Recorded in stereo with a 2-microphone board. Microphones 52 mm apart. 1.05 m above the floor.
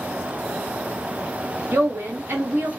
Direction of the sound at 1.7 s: 40° right (ahead or behind).